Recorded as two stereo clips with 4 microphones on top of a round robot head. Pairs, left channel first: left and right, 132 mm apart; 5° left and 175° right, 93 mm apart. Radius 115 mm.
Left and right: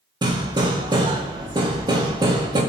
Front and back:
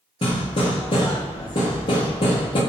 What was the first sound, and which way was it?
Hammering, 30° right.